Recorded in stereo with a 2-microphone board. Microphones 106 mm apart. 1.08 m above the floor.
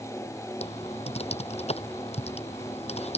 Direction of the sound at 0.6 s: 80° left.